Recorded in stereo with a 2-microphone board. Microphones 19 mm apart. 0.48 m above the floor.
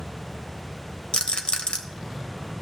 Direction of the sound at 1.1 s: 65° left (ahead or behind).